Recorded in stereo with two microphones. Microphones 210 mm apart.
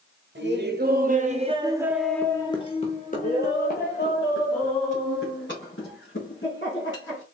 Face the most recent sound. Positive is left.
turn(degrees=70)  # may be behind; listen again after turning